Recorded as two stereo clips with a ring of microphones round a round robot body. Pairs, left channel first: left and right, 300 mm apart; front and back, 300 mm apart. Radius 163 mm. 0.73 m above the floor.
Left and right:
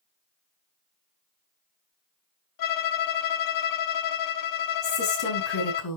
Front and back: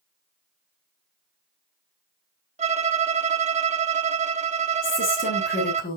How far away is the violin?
About 1.3 m.